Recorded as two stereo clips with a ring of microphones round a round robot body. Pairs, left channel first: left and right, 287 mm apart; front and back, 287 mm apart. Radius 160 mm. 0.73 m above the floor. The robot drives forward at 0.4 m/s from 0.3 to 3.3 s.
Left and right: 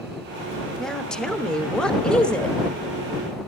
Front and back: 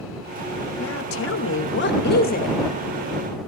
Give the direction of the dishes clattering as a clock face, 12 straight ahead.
No dishes clattering in this recording.